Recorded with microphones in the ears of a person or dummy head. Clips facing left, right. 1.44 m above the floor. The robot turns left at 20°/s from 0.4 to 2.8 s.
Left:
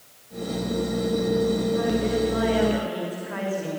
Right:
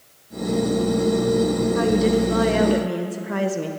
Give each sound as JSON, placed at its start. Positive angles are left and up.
{"t": 1.8, "sound": "a woman speaking", "side_deg": -70, "distance_m": 1.2}